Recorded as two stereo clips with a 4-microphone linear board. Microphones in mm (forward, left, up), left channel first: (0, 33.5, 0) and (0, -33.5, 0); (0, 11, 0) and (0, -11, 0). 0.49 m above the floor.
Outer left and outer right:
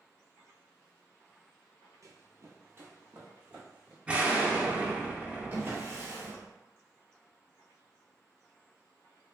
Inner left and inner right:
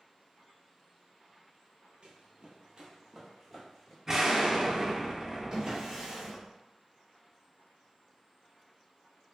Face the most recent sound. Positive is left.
turn(degrees=-30)  # may be behind; listen again after turning